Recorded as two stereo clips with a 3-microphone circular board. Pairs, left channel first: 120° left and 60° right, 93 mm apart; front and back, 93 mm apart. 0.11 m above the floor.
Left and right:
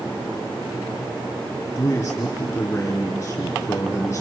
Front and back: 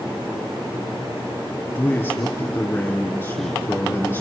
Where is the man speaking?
60° left, 3.5 m.